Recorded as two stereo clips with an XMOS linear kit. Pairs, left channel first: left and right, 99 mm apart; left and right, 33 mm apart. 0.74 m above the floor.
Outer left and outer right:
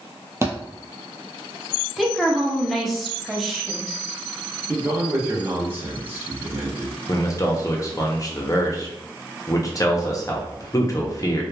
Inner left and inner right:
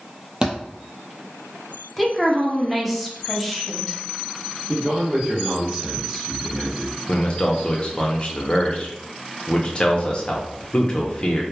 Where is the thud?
30° right (ahead or behind), 0.8 m.